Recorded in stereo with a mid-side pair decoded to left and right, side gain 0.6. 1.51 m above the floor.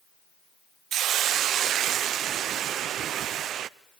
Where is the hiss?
55° right, 0.7 m.